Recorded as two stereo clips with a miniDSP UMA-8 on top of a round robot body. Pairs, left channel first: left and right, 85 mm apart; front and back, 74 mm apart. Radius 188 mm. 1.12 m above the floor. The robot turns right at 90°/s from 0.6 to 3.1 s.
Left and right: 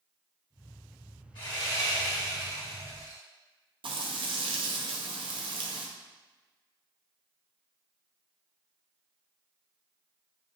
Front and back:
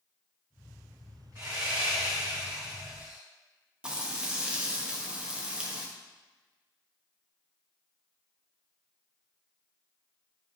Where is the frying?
105° right, 0.8 m.